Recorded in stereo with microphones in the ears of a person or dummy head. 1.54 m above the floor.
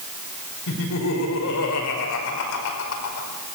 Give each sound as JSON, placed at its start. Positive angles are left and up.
{"t": 0.7, "sound": "laughter", "side_deg": 75, "distance_m": 5.5}